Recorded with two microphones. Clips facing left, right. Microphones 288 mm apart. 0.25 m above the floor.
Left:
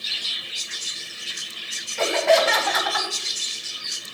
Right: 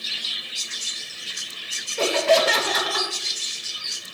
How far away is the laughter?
About 1.4 m.